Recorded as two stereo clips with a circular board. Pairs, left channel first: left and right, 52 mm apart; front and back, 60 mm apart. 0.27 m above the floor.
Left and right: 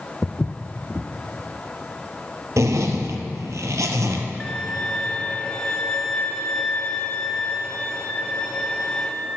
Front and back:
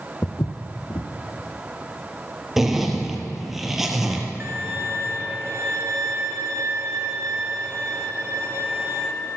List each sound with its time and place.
0.2 s footsteps: 20° left, 0.6 m
2.6 s a zipper: 95° right, 1.1 m
4.4 s a violin: 150° left, 0.9 m